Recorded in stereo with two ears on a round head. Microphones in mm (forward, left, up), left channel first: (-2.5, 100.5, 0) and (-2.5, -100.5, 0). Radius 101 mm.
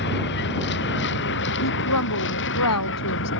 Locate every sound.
0.0 s a vehicle: 55° left (ahead or behind); by 3.4 s 60° left (ahead or behind)
1.6 s a woman speaking: 85° left